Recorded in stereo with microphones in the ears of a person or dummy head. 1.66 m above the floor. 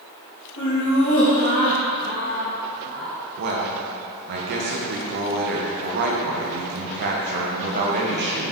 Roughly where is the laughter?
Left.